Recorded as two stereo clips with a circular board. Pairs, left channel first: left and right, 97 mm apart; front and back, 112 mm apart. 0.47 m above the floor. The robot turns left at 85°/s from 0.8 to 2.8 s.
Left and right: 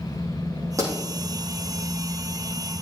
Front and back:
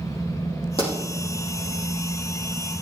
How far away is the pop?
About 5.5 m.